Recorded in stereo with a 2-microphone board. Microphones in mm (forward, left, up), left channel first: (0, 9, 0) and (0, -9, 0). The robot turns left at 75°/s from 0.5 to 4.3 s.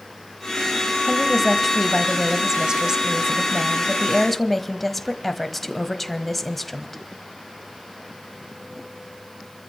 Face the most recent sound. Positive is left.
turn(degrees=155)